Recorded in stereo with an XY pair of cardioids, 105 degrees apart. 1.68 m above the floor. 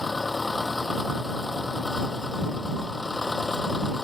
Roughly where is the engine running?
Ahead.